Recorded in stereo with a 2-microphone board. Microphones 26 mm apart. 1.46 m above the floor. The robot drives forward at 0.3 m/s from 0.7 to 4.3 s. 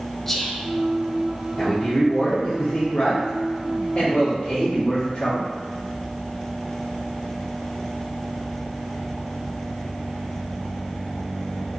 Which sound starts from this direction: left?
A man speaking, at 1.6 s.